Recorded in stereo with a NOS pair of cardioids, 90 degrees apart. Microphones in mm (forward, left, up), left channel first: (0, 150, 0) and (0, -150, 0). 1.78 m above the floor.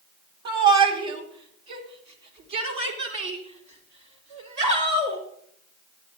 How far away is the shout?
About 2 m.